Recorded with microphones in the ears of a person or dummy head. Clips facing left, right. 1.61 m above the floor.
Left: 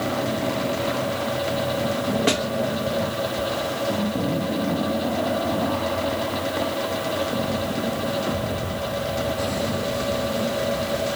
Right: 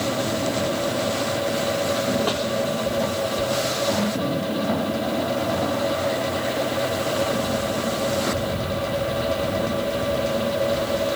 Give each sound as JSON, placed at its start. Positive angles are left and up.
{"t": 2.3, "sound": "a snare drum", "side_deg": 30, "distance_m": 1.6}